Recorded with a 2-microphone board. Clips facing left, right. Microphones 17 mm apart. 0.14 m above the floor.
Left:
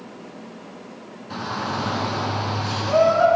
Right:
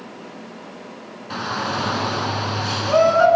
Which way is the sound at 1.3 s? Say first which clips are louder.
Right 3 dB; 30° right (ahead or behind).